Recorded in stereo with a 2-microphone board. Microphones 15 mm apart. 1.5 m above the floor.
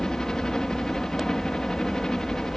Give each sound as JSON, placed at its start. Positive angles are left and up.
{"t": 0.0, "sound": "a helicopter", "side_deg": 50}